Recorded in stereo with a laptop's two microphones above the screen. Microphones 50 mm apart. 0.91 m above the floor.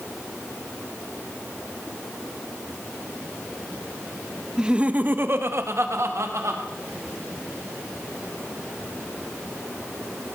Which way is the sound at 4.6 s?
10° right (ahead or behind).